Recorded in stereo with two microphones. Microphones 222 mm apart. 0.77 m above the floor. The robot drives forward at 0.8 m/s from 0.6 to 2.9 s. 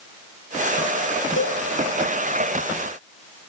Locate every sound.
1.4 s a cowbell: 70° left (ahead or behind), 4 m; by 1.6 s 75° left (ahead or behind), 4 m